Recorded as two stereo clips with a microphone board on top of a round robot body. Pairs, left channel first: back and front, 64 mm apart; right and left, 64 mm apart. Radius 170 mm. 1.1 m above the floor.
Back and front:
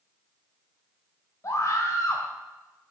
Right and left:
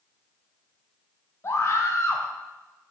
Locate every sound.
1.4 s a scream: 135° right, 0.9 m